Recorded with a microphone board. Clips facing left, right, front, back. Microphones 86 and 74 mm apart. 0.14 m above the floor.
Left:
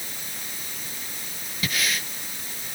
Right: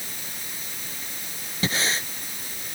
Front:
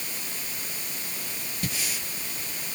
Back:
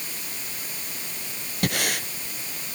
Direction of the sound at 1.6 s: 150° right.